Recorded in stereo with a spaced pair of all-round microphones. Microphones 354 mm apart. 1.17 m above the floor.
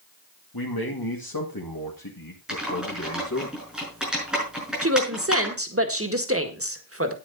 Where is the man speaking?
75° left (ahead or behind), 2 m; by 3.5 s 45° left (ahead or behind), 1.9 m.